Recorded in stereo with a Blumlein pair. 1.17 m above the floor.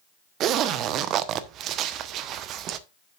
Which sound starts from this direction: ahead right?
A zipper, at 0.4 s.